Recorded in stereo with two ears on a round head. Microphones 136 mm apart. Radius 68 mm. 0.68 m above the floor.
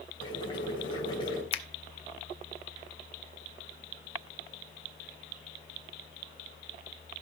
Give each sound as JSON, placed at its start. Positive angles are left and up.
{"t": 0.2, "sound": "boiling", "side_deg": 30, "distance_m": 3.5}
{"t": 1.5, "sound": "a finger snap", "side_deg": 35, "distance_m": 0.7}